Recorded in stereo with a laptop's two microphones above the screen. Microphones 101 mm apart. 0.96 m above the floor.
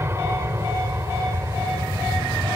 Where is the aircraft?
25° right (ahead or behind); by 2.6 s 30° right (ahead or behind).